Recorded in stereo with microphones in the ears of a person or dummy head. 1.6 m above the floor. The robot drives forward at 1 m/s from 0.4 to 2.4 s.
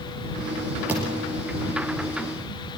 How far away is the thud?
About 8 m.